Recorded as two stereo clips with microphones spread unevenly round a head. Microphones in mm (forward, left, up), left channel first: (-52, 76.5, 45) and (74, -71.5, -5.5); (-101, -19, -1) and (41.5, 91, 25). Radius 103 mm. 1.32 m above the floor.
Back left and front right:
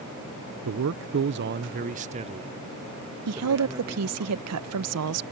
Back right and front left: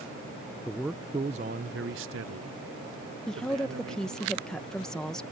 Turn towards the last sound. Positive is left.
turn(degrees=-55)